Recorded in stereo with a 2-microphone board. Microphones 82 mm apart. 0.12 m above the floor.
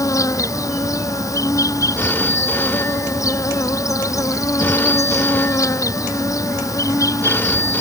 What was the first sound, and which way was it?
An insect, 40° left (ahead or behind).